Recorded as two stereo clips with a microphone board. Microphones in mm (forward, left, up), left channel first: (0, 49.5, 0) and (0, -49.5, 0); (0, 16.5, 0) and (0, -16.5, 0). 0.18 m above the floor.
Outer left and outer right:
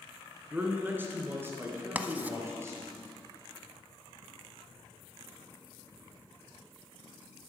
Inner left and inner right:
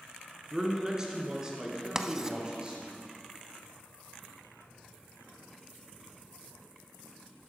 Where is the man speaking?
15° right (ahead or behind), 1.7 m; by 3.0 s 25° right (ahead or behind), 3 m.